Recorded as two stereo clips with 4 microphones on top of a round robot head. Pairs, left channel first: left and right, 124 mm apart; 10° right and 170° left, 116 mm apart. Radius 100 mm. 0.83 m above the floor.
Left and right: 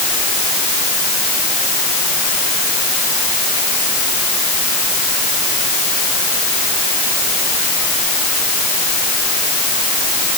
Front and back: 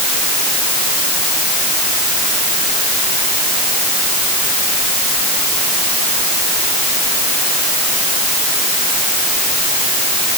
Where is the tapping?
I don't hear tapping.